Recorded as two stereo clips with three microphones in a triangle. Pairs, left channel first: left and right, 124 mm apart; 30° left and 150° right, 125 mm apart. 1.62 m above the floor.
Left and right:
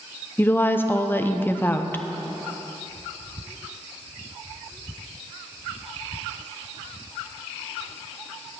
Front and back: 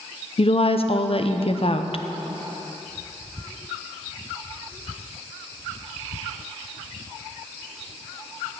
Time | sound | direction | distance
0.4 | a woman speaking | 25° left | 0.6 m